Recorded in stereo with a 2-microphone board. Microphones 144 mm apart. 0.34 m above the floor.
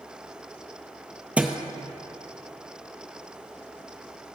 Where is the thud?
10° right (ahead or behind), 0.5 m.